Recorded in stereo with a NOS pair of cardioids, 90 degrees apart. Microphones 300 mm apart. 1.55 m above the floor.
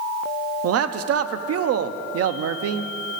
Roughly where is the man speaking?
Ahead right.